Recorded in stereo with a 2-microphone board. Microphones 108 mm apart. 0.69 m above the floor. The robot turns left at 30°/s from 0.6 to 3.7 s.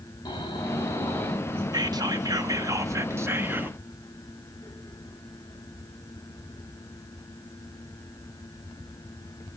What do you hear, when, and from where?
0.2 s snoring: 40° left, 3.5 m; by 1.6 s 10° left, 3.5 m
1.7 s whispering: 95° right, 0.9 m; by 3.8 s 150° right, 0.9 m